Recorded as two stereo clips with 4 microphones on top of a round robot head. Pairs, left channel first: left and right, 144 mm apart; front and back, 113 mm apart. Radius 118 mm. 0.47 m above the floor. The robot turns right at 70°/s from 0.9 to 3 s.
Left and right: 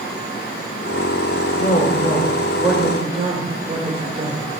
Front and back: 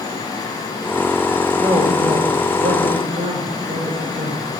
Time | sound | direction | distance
1.6 | a woman speaking | 120° left | 1.8 m